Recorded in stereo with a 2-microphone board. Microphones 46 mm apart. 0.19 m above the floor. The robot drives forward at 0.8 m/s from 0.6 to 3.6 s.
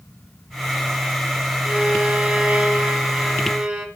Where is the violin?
25° right (ahead or behind), 1.3 m; by 3.9 s 15° right (ahead or behind), 2.0 m.